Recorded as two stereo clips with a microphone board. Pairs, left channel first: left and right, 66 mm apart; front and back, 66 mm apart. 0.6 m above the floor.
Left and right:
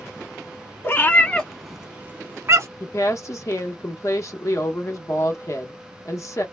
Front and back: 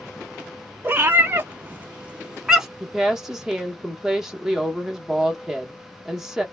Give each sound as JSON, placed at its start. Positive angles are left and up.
{"t": 0.8, "sound": "a cat meowing", "azimuth_deg": 130, "distance_m": 0.7}
{"t": 2.8, "sound": "a woman speaking", "azimuth_deg": 100, "distance_m": 0.8}